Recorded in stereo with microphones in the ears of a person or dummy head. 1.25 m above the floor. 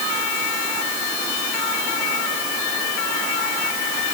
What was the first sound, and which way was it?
Only background noise.